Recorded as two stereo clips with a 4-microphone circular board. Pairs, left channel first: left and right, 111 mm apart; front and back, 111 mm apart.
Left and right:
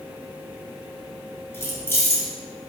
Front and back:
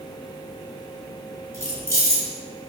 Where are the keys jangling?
140° left, 0.9 m.